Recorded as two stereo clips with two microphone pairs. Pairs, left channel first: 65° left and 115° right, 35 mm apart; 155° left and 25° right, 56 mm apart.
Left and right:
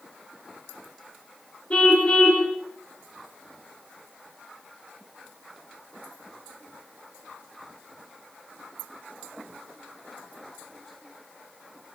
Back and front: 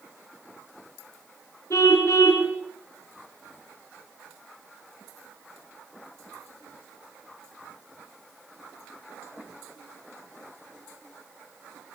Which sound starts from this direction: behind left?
A car horn, at 1.7 s.